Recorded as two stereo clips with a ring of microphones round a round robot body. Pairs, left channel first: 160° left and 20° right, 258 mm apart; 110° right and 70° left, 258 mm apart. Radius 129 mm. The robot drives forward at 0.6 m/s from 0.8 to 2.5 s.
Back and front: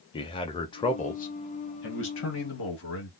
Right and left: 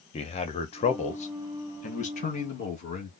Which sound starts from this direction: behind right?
A man speaking, at 0.1 s.